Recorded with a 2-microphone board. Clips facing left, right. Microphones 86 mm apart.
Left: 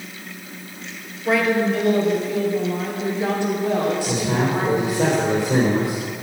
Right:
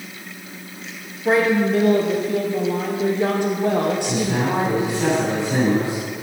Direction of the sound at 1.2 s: 30° right (ahead or behind).